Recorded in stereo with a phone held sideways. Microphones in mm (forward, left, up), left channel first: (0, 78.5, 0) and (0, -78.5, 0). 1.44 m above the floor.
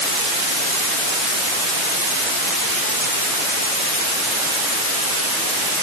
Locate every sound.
Only background noise.